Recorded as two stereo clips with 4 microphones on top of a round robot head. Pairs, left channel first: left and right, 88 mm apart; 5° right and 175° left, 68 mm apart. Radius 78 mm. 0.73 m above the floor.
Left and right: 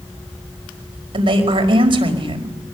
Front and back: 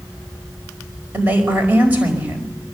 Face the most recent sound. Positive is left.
turn(degrees=-110)